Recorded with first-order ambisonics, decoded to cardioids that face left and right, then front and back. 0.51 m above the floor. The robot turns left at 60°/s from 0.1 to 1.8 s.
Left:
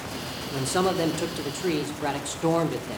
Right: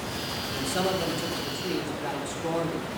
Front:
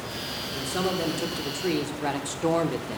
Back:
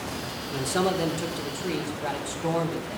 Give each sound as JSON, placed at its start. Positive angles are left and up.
{"t": 0.5, "sound": "a man speaking", "azimuth_deg": 125, "distance_m": 1.1}